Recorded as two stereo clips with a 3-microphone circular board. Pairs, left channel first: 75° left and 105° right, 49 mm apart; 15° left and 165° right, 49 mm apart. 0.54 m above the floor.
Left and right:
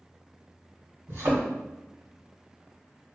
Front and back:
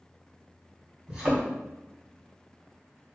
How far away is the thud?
About 1.8 m.